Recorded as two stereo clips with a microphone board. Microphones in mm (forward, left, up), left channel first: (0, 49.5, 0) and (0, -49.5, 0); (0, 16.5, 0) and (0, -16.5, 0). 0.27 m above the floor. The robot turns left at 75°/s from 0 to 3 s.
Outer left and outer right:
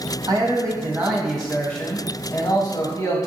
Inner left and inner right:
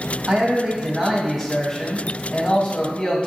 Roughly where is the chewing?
I don't hear chewing.